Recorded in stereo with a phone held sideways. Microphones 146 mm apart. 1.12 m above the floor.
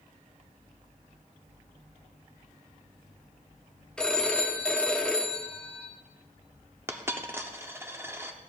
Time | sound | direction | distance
4.0 | a phone ringing | 5° left (ahead or behind) | 0.9 m
6.9 | a dropped coin | 15° right (ahead or behind) | 0.7 m